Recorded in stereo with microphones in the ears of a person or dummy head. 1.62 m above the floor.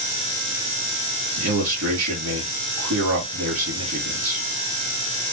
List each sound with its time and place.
1.4 s a man speaking: 80° right, 3 m